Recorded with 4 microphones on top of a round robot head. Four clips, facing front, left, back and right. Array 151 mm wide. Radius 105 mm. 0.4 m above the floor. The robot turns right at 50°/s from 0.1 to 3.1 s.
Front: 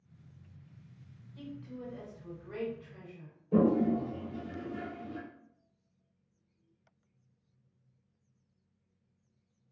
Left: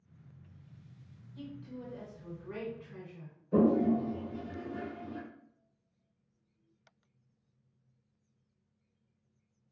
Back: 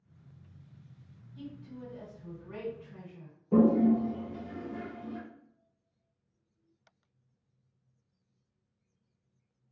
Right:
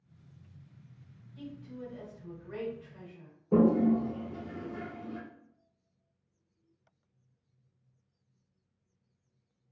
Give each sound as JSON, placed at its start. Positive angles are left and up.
{"t": 1.4, "sound": "a woman speaking", "azimuth_deg": 5, "distance_m": 1.8}
{"t": 3.5, "sound": "a toilet flushing", "azimuth_deg": -120, "distance_m": 0.6}